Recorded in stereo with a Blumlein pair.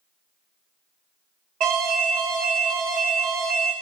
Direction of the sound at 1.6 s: 40° right.